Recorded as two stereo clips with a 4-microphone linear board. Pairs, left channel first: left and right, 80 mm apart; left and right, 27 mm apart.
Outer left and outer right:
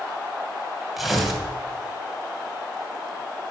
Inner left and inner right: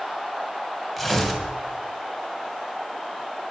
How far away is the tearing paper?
About 2.5 m.